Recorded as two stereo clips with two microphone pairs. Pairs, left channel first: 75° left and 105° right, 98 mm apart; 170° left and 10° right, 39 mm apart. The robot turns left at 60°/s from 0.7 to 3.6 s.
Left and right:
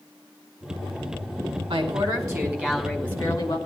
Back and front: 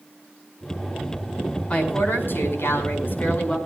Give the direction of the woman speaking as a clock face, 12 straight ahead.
4 o'clock.